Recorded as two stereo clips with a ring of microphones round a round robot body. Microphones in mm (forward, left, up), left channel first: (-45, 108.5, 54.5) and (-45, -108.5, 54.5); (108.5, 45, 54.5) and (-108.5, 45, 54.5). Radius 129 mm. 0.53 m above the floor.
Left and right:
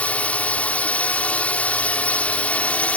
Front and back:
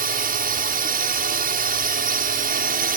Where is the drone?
170° left.